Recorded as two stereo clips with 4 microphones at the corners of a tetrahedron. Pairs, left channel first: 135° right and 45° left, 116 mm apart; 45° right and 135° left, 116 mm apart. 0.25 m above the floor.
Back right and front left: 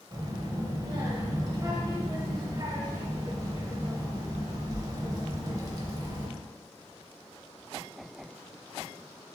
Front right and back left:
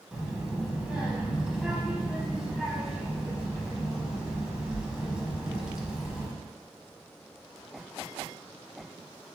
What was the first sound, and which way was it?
A child speaking, 60° left.